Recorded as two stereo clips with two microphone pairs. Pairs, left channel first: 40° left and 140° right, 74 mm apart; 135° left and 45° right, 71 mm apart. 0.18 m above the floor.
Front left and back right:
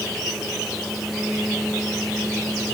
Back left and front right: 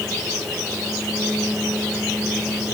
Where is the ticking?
I don't hear ticking.